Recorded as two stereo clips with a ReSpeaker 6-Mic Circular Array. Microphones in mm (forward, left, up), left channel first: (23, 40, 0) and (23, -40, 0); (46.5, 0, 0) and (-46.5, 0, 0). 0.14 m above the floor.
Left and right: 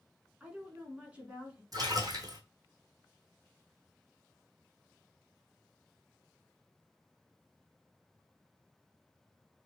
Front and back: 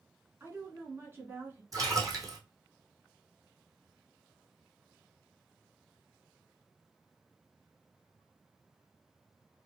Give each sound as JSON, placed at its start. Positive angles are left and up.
{"t": 0.4, "sound": "a woman speaking", "azimuth_deg": -145, "distance_m": 1.4}
{"t": 1.7, "sound": "a splash", "azimuth_deg": -130, "distance_m": 1.3}